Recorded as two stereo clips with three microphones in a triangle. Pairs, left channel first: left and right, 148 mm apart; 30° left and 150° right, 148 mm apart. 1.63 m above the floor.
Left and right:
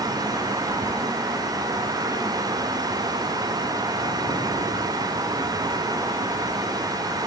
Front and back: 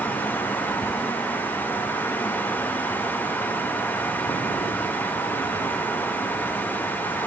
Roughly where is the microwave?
I don't hear a microwave.